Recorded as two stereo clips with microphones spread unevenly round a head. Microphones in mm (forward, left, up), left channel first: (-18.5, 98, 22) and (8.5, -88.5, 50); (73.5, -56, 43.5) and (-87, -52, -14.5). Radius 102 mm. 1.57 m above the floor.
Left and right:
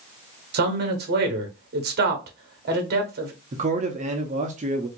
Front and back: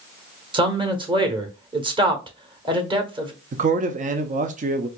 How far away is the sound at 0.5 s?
About 1.1 m.